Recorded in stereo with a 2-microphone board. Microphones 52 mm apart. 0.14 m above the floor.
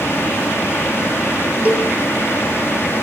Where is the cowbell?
30° right (ahead or behind), 1.2 m.